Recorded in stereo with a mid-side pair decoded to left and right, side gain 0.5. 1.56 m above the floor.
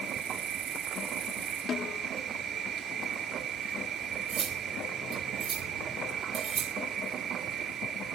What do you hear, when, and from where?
0.0 s an insect: 55° right, 4 m
1.7 s a snare drum: 50° left, 1.1 m
4.3 s cutlery clinking: 55° right, 3 m